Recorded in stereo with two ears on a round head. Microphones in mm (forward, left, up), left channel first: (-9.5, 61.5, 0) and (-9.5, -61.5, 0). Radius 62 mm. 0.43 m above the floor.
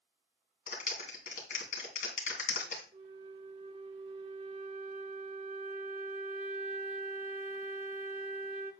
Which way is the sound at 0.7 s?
65° left (ahead or behind).